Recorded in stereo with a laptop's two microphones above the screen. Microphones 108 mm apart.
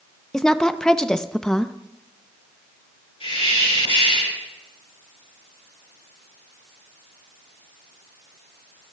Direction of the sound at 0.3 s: 5° left (ahead or behind).